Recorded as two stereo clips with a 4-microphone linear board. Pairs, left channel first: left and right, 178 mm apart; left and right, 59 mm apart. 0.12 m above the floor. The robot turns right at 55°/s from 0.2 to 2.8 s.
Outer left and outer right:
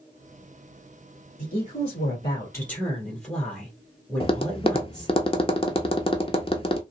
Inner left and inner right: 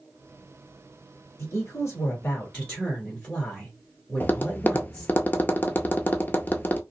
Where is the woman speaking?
95° left, 1.6 m; by 5.2 s 170° left, 1.6 m.